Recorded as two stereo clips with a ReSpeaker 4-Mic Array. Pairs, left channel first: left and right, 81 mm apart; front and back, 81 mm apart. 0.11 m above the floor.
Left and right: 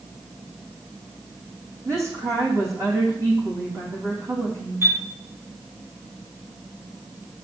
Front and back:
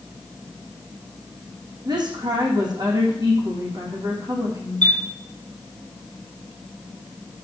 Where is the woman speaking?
145° right, 4.5 m.